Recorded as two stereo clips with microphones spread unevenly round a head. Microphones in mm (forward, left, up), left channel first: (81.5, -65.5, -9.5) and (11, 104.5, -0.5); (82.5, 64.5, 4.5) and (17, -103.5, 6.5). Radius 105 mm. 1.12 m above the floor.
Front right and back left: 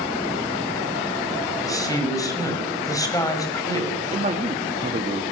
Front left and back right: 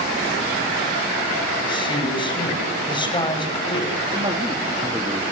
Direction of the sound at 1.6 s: 5° left.